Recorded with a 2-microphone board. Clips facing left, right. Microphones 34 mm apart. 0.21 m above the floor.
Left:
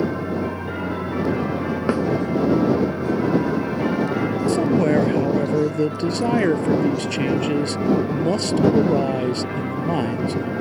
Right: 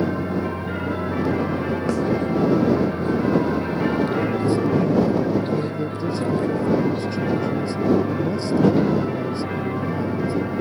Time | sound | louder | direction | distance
0.0 | an aircraft | even | 40° right (ahead or behind) | ?
1.9 | a snare drum | left 3 dB | 25° left (ahead or behind) | ?
4.5 | a man speaking | left 3 dB | 70° left (ahead or behind) | ?